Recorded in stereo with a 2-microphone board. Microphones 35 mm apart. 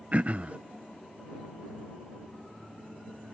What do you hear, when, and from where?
0.1 s throat clearing: 40° right (ahead or behind)